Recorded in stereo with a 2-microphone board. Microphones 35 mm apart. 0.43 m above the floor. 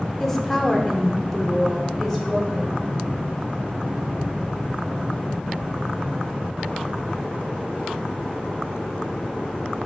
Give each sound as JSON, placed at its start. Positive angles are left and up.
{"t": 0.2, "sound": "a woman speaking", "side_deg": 10, "distance_m": 0.8}